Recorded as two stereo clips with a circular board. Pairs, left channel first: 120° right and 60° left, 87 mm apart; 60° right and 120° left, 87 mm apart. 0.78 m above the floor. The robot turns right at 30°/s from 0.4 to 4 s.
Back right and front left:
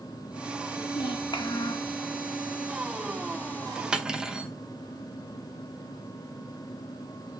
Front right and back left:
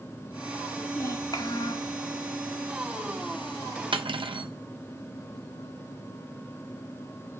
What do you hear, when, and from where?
0.9 s a child speaking: 110° right, 1.0 m; by 1.9 s 80° right, 1.0 m
3.9 s cutlery clinking: 140° left, 0.7 m; by 4.5 s 145° left, 0.7 m